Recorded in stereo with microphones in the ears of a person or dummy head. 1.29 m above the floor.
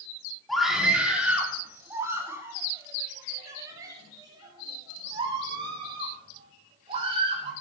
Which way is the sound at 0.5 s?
Centre (ahead or behind).